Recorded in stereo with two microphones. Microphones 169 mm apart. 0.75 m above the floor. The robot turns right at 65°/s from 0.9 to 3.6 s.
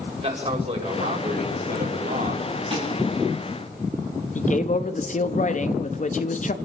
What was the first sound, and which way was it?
A man speaking, 140° right.